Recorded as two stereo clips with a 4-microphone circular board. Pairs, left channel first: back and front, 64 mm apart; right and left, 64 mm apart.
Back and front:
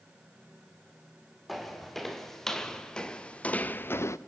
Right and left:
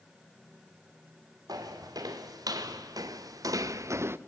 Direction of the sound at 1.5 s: 90° left.